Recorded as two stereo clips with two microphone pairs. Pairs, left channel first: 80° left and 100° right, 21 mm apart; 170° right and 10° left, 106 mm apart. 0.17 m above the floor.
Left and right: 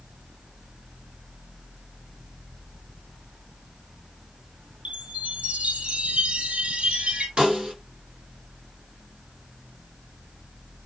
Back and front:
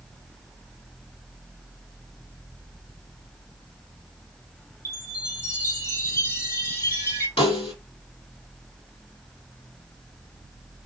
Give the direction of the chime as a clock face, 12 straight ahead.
4 o'clock.